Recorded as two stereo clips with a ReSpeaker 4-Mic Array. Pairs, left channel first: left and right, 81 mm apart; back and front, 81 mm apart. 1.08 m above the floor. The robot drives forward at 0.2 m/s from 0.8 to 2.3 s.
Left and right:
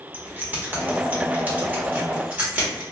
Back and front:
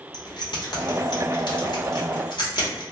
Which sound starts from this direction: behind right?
Keys jangling, at 0.1 s.